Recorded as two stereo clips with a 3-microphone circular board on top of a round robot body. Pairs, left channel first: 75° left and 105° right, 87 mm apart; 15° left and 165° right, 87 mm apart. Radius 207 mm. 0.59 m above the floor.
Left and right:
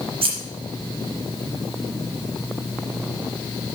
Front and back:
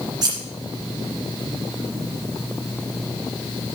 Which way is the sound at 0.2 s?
120° right.